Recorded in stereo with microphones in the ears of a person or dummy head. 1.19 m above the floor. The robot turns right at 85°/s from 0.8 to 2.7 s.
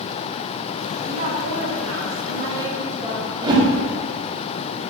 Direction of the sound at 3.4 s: 25° right (ahead or behind).